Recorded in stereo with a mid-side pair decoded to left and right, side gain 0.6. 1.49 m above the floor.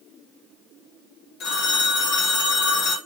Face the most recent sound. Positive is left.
turn(degrees=60)